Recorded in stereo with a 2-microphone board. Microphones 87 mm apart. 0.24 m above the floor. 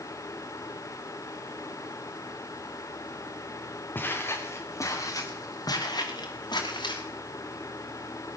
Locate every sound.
4.0 s footsteps: 25° left (ahead or behind), 3 m; by 7.0 s 60° left (ahead or behind), 5 m